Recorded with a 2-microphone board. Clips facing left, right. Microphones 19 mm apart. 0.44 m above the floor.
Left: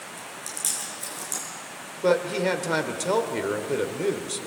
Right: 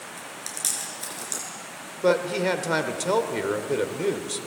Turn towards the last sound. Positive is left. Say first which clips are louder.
# even
turn(degrees=-5)  # may be behind; listen again after turning